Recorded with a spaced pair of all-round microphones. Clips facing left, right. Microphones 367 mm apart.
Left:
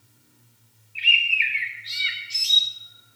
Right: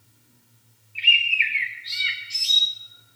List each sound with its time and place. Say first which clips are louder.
0.9 s a bird: right 1 dB; 60° left (ahead or behind), 4 m